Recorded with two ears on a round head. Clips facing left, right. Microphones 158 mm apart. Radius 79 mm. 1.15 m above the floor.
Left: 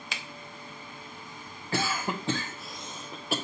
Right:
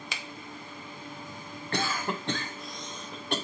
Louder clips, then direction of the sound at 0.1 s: Left 2 dB; 80° right.